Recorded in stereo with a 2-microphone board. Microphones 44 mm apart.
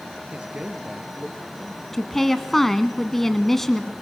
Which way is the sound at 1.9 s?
5° left (ahead or behind).